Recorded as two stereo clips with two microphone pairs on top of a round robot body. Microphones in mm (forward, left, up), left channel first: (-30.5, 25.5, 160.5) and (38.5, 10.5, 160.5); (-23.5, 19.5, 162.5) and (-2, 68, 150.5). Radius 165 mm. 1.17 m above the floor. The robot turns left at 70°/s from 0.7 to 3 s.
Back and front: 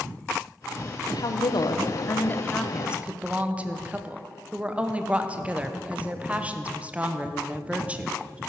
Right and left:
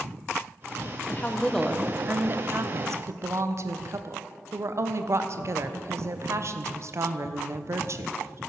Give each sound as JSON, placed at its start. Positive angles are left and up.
{"t": 1.1, "sound": "a woman speaking", "azimuth_deg": -170, "distance_m": 1.1}